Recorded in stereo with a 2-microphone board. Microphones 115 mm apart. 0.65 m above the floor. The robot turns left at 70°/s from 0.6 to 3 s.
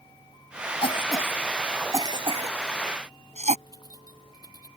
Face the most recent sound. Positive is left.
turn(degrees=30)  # may be behind; listen again after turning